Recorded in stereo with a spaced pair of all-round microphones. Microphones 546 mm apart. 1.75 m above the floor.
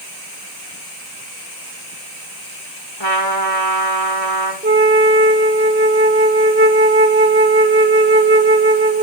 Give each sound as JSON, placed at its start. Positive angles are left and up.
{"t": 3.0, "sound": "a trumpet", "side_deg": 50, "distance_m": 3.0}
{"t": 4.6, "sound": "a flute", "side_deg": -20, "distance_m": 1.1}